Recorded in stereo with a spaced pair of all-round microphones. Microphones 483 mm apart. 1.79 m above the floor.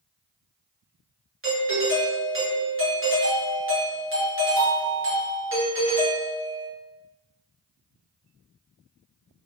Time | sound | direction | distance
1.4 | a doorbell | 25° right (ahead or behind) | 1.3 m